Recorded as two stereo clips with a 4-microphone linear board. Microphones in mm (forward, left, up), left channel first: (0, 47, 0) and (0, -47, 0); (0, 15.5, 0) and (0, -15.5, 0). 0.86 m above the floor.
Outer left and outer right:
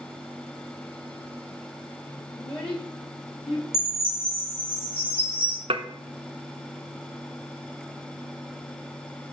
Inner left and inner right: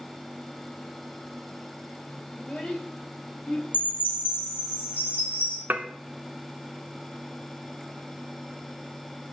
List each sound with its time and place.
2.4 s a child speaking: 55° left (ahead or behind), 1.8 m; by 3.6 s 80° left, 1.9 m
3.7 s a chime: 75° left (ahead or behind), 3.5 m
5.7 s dishes clattering: 70° right (ahead or behind), 0.6 m